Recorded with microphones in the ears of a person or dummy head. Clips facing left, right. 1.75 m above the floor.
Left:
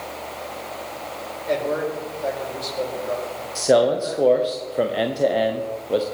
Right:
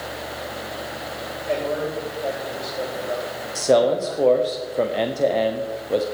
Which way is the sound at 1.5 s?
25° left (ahead or behind).